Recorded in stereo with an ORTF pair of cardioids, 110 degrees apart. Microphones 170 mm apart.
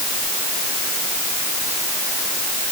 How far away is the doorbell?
No doorbell in this recording.